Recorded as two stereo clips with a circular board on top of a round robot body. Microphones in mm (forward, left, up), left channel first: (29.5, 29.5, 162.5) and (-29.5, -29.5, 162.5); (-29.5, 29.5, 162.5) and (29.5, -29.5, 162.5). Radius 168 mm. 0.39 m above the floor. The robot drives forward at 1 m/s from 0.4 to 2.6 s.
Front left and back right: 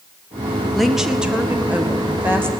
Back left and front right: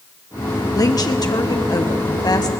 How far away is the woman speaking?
About 1.6 m.